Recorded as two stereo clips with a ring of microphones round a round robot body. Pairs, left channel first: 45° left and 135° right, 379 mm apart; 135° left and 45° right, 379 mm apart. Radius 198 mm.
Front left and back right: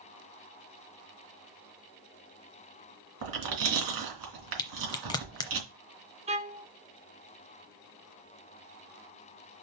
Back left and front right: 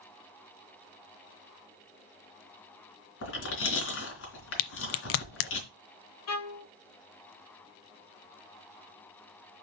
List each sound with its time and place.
3.2 s chewing: 170° right, 3 m
4.6 s a crack: 120° left, 0.6 m
6.3 s a violin: 160° left, 1.2 m